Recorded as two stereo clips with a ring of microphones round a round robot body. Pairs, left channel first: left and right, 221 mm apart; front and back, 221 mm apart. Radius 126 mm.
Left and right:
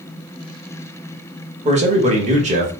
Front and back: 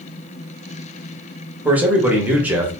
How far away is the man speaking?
About 1.0 m.